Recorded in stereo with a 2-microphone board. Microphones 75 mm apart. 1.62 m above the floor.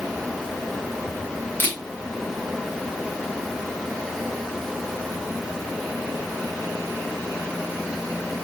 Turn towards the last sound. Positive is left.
turn(degrees=25)  # may be behind; listen again after turning